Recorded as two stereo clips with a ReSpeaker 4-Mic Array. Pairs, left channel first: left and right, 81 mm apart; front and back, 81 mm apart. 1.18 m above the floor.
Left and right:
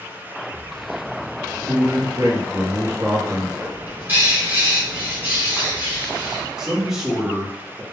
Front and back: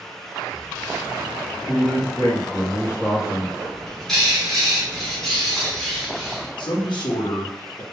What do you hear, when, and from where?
1.7 s a man speaking: 50° right, 0.8 m
3.6 s a bird: 75° right, 0.8 m
6.6 s a man speaking: 10° right, 0.7 m